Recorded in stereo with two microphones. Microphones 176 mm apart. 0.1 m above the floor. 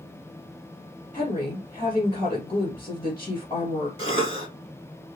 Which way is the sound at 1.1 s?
30° left (ahead or behind).